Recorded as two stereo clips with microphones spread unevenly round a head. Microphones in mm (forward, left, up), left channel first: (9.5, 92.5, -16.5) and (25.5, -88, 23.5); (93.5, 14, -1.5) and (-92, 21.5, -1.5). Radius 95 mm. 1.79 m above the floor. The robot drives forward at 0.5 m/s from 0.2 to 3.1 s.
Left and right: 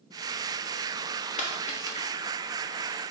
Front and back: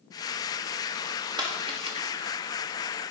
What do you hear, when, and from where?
1.4 s a dropped coin: 130° left, 1.3 m; by 2.1 s 145° left, 1.4 m